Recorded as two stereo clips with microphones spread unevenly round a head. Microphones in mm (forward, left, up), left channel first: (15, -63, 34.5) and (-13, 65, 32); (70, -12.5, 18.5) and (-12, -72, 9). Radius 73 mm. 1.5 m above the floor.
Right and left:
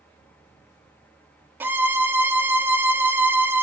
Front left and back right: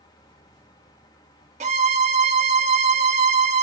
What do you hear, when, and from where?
0.0 s a fan: straight ahead, 1.1 m
1.6 s a violin: straight behind, 0.7 m